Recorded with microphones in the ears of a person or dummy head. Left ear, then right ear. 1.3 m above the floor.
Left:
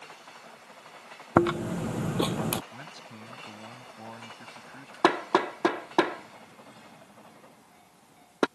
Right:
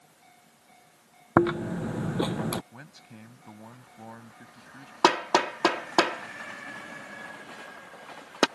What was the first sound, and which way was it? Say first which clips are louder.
Chewing: even; 10° left (ahead or behind).